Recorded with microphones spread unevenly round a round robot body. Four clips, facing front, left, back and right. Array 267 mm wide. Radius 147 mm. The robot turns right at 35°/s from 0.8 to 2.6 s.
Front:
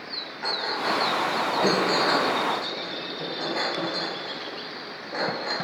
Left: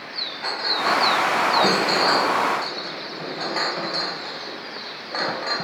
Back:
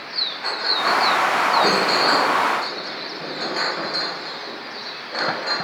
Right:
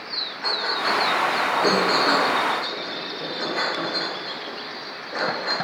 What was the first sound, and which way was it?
A clink, 15° left.